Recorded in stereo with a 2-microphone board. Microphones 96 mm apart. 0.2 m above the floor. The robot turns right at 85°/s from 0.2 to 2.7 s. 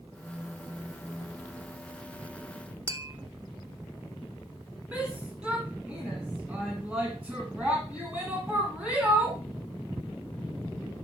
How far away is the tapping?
About 0.8 m.